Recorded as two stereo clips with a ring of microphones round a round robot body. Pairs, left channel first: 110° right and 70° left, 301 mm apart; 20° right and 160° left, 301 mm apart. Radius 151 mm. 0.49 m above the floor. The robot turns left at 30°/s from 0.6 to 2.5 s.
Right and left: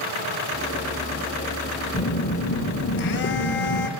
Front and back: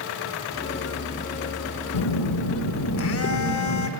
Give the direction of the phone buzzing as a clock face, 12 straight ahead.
1 o'clock.